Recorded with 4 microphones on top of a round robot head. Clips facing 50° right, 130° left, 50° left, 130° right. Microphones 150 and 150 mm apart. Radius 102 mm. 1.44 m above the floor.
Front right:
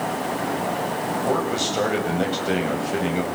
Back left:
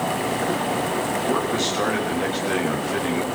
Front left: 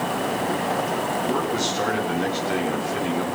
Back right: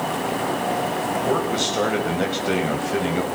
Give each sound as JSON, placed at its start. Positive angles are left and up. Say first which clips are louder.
{"t": 1.2, "sound": "a man speaking", "louder": "front right 2 dB, back right 2 dB", "azimuth_deg": -100, "distance_m": 7.5}